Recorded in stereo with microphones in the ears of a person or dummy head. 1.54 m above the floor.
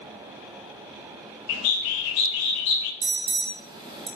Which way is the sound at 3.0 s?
25° right (ahead or behind).